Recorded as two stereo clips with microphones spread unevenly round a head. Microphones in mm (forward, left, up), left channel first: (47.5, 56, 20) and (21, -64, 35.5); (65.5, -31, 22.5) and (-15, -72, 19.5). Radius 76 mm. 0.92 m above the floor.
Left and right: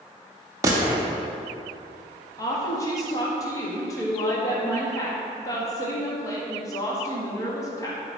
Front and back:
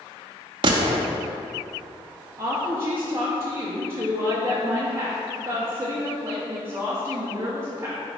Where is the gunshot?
160° right, 0.6 m.